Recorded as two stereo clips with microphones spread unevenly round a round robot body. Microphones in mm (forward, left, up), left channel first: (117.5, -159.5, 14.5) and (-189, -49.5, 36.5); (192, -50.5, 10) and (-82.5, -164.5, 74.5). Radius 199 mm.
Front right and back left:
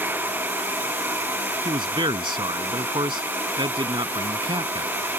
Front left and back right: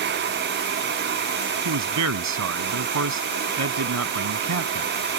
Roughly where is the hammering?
No hammering in this recording.